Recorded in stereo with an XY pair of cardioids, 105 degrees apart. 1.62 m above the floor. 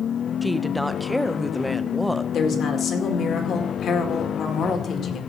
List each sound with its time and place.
0.4 s a woman speaking: straight ahead, 0.8 m
2.3 s a woman speaking: 55° left, 2.0 m